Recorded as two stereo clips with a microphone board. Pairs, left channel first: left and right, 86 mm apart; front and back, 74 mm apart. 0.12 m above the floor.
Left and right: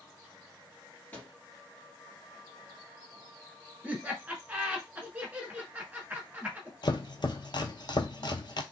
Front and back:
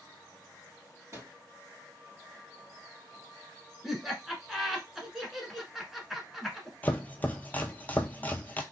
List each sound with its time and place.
1.1 s a microwave: 155° left, 1.9 m
3.8 s laughter: 100° right, 1.2 m
6.8 s chopping: 65° left, 0.5 m